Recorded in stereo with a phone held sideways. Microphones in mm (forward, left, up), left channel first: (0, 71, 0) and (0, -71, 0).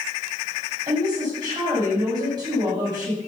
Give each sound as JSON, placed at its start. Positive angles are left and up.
{"t": 0.9, "sound": "a woman speaking", "side_deg": -30, "distance_m": 7.5}